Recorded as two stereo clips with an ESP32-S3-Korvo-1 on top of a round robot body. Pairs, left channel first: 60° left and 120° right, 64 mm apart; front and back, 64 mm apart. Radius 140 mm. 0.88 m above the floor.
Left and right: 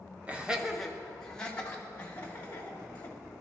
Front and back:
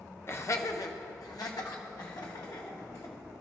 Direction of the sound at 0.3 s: 50° right.